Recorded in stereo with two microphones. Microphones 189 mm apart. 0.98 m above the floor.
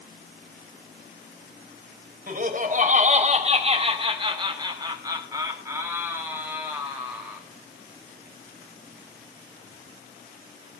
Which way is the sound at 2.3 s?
50° right (ahead or behind).